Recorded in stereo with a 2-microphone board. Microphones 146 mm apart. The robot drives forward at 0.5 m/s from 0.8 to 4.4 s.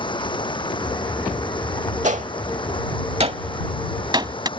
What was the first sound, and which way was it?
Running water, 35° left (ahead or behind).